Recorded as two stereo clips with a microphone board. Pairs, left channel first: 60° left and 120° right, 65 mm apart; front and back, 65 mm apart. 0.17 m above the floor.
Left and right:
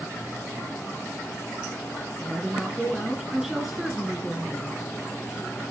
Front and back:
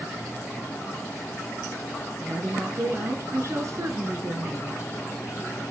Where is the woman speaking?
155° left, 1.9 m.